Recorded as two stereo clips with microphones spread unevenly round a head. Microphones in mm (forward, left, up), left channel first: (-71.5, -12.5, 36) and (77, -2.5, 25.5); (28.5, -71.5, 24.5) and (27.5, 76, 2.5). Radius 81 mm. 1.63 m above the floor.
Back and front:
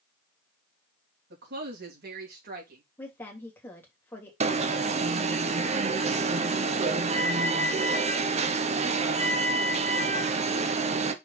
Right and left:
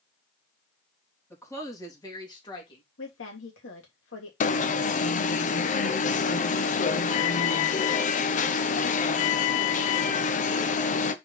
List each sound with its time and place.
1.3 s a woman speaking: 15° right, 3.5 m; by 2.8 s 30° right, 3.5 m
3.0 s a woman speaking: 100° right, 3 m
4.4 s an alarm: 50° right, 0.9 m